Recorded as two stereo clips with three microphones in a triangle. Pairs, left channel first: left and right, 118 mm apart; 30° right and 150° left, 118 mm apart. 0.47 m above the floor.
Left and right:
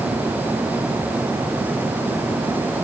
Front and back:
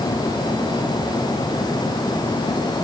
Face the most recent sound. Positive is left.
No sound to turn to.